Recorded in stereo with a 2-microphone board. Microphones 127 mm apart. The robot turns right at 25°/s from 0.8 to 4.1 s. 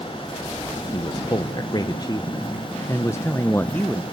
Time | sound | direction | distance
0.9 | a man speaking | 85° left | 0.7 m